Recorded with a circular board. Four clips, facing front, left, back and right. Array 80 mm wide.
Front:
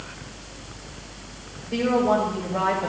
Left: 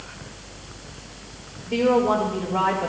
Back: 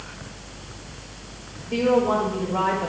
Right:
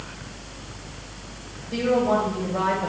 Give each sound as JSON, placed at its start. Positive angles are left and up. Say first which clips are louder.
{"t": 1.7, "sound": "a woman speaking", "louder": "left 2 dB, back 1 dB", "azimuth_deg": 115, "distance_m": 7.5}